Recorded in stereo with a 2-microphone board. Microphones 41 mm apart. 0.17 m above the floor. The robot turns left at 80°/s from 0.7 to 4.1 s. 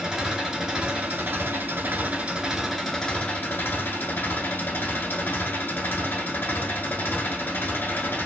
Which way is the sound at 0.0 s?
15° right.